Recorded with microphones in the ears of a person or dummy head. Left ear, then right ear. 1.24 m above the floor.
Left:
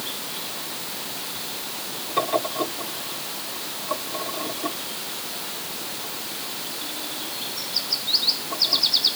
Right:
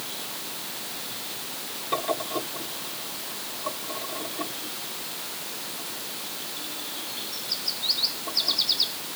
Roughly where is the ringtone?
I don't hear a ringtone.